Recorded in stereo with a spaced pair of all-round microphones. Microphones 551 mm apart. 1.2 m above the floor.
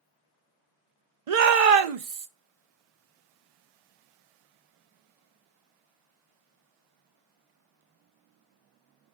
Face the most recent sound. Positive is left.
turn(degrees=-75)  # may be behind; listen again after turning